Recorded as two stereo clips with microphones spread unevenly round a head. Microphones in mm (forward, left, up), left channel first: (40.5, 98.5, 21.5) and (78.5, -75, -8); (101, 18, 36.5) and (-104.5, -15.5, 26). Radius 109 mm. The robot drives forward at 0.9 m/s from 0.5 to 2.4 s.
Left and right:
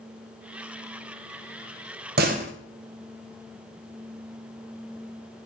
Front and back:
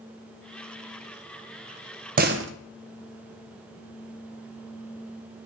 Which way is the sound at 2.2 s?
120° right.